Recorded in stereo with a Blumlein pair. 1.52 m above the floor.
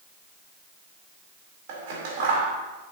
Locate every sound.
1.7 s scissors: 50° right, 3.5 m